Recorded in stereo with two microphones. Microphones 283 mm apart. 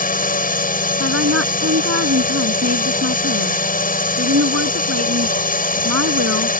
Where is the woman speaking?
55° right (ahead or behind).